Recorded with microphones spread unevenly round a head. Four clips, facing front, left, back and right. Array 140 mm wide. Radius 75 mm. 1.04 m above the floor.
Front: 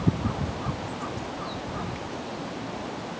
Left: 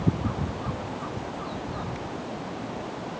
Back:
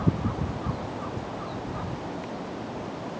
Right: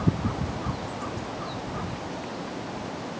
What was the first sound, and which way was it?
Only background noise.